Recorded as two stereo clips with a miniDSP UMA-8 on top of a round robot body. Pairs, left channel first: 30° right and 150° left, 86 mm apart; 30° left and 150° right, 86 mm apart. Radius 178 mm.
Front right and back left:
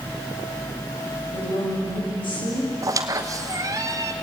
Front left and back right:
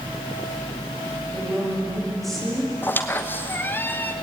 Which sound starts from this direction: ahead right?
A woman speaking, at 1.3 s.